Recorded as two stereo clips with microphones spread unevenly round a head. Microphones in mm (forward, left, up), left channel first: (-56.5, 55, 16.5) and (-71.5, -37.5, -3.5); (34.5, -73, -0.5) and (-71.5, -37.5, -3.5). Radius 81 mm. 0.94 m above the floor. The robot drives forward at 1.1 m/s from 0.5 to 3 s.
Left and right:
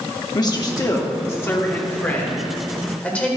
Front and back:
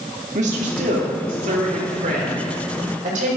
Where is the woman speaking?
130° left, 2.5 m; by 3.3 s 160° left, 4.5 m.